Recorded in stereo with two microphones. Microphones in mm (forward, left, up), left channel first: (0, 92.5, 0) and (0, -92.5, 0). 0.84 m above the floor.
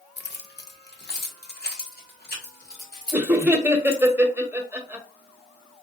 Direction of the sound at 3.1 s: 10° right (ahead or behind).